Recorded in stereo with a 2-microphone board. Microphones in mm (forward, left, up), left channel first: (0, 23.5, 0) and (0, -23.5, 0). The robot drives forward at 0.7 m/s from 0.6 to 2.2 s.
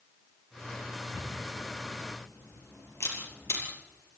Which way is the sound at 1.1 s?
80° left.